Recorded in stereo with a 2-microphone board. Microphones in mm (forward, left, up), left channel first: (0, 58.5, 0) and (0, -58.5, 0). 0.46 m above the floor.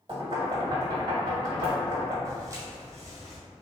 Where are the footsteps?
30° right (ahead or behind), 1.0 m; by 3.4 s 25° right (ahead or behind), 1.7 m.